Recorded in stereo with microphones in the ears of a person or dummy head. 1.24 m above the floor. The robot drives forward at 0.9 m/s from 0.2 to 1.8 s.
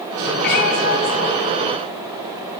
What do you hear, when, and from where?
0.4 s a cat meowing: 55° left (ahead or behind), 4.5 m; by 2.6 s 45° left (ahead or behind), 5 m